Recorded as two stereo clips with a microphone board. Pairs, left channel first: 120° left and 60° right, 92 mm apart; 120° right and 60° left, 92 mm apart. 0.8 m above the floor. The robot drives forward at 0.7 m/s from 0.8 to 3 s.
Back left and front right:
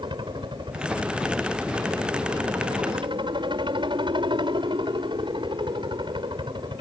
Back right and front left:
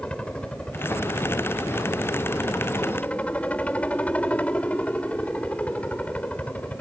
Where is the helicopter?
40° right; by 6.8 s 45° right.